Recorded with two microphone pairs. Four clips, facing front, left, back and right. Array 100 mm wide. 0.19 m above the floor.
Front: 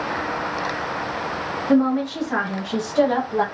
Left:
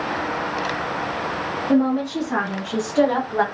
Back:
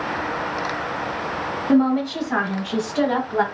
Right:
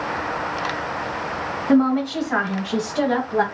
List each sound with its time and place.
1.7 s a woman speaking: 105° right, 1.5 m; by 3.5 s 110° left, 1.4 m